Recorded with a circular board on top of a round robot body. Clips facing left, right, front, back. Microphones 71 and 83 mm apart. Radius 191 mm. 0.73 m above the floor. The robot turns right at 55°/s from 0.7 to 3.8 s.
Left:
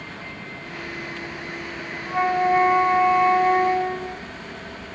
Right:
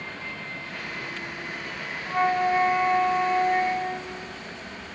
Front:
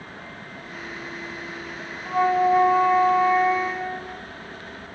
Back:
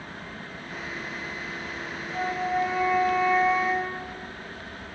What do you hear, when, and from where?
2.0 s a flute: straight ahead, 0.5 m; by 4.2 s 95° left, 0.5 m